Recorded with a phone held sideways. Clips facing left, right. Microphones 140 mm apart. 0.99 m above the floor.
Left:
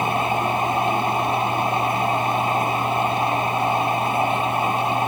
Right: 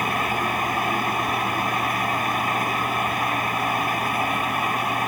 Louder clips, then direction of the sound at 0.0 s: Left 3 dB; 25° left (ahead or behind).